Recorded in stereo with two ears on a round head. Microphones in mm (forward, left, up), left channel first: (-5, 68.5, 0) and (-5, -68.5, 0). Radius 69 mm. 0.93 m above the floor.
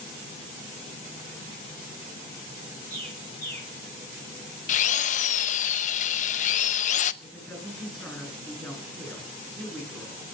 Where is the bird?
10° left (ahead or behind), 8 m.